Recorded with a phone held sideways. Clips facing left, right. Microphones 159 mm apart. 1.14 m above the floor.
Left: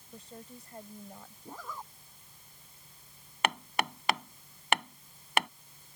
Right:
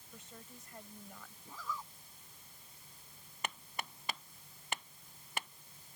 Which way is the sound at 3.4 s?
90° left.